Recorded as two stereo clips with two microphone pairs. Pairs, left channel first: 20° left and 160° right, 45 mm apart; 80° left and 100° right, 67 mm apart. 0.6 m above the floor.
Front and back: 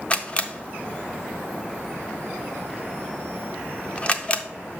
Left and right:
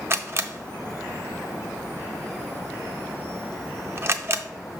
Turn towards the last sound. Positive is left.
turn(degrees=-45)